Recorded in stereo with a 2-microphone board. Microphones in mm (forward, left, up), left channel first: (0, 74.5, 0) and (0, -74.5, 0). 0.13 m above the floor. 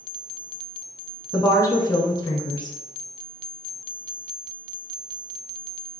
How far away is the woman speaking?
About 1.1 m.